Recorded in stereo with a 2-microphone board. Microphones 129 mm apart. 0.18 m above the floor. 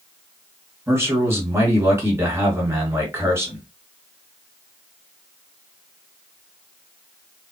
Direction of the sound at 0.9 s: 20° right (ahead or behind).